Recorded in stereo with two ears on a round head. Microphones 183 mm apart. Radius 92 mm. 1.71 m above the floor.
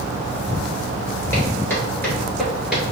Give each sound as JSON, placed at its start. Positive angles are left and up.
{"t": 1.3, "sound": "footsteps", "side_deg": 15, "distance_m": 1.7}